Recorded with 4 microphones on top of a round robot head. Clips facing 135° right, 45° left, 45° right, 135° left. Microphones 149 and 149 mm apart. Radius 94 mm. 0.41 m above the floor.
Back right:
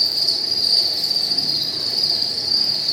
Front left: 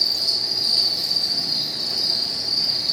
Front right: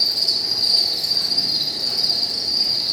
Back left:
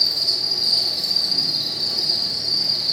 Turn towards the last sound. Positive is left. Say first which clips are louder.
# back right 1 dB, front right 1 dB
turn(degrees=-100)